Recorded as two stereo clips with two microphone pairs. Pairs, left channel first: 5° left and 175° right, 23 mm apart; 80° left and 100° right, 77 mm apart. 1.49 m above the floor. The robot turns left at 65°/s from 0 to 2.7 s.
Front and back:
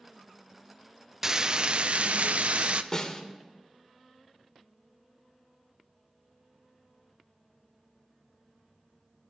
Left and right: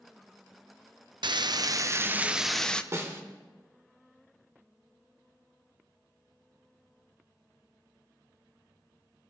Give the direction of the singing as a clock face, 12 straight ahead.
I don't hear singing.